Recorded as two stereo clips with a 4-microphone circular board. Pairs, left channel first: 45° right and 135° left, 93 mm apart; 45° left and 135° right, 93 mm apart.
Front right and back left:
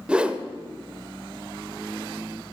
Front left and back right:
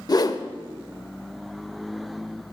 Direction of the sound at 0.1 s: 60° left.